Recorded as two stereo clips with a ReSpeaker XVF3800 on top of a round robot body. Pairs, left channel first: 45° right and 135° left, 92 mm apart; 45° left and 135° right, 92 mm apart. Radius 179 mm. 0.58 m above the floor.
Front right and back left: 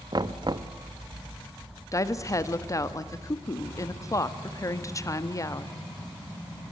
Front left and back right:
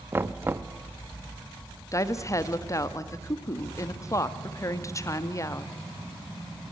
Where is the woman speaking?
Straight ahead, 1.5 m.